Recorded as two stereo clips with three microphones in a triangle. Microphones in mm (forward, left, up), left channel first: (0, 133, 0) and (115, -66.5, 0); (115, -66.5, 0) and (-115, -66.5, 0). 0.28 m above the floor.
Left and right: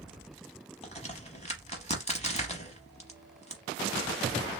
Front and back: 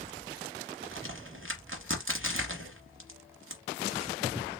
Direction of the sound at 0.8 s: 175° left.